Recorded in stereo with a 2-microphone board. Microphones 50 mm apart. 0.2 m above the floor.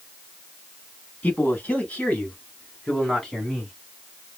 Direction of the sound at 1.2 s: 35° left (ahead or behind).